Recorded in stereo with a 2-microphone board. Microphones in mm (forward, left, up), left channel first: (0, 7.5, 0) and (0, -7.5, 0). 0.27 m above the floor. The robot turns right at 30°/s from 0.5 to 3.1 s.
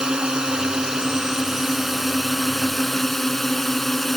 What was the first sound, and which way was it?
A drone, 60° right.